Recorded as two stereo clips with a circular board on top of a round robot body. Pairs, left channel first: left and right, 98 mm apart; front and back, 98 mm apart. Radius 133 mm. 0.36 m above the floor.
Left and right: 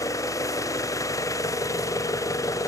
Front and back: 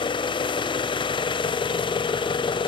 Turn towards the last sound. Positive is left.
turn(degrees=35)